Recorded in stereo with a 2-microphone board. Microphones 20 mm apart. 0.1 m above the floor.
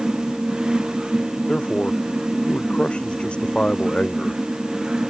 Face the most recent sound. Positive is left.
turn(degrees=55)  # may be behind; listen again after turning